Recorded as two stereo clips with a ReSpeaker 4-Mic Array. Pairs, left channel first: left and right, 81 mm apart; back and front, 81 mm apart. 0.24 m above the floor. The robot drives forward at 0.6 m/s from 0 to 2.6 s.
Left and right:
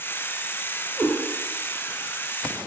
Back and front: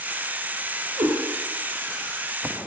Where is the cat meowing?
5° left, 1.1 m.